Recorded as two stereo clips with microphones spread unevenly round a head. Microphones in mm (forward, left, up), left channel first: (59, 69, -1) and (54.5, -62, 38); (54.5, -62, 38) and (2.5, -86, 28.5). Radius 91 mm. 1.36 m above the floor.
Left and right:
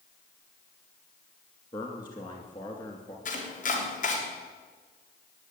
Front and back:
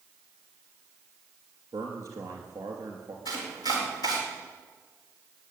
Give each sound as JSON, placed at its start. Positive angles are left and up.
{"t": 1.7, "sound": "a man speaking", "azimuth_deg": 150, "distance_m": 2.5}
{"t": 3.2, "sound": "chopping", "azimuth_deg": 70, "distance_m": 3.5}